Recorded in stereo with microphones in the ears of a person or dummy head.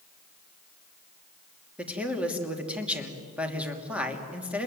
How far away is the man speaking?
About 3 m.